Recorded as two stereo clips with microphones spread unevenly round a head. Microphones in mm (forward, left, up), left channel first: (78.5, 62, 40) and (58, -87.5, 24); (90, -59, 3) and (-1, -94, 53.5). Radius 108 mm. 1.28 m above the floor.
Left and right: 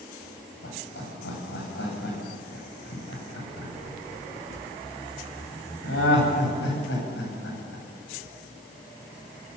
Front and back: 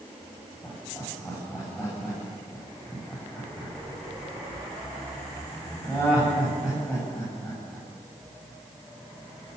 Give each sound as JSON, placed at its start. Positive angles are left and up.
{"t": 0.6, "sound": "laughter", "azimuth_deg": 105, "distance_m": 9.5}